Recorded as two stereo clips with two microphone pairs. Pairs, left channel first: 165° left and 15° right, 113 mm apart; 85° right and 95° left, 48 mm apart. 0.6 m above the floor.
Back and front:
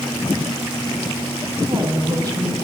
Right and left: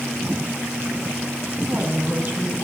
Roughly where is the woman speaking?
Ahead left.